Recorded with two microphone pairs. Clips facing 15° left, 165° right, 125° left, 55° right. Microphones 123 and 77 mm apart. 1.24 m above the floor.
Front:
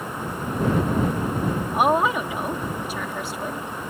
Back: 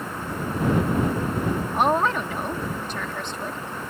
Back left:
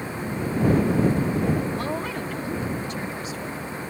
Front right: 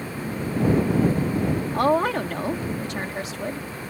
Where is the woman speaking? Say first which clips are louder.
Front 2 dB, front right 8 dB; 65° right.